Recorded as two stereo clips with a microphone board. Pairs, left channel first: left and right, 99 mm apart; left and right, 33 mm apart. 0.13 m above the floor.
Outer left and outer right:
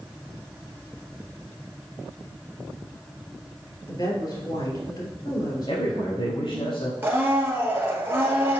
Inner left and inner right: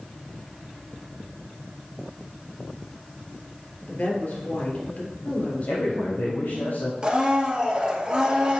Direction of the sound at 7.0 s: 20° right (ahead or behind).